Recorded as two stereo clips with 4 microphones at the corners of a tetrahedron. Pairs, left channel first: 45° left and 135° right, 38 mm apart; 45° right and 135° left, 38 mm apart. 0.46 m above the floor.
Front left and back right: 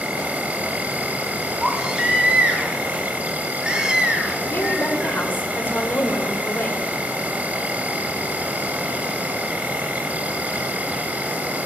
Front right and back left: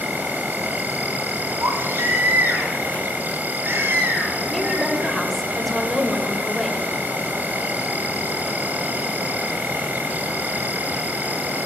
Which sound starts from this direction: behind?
An insect, at 0.0 s.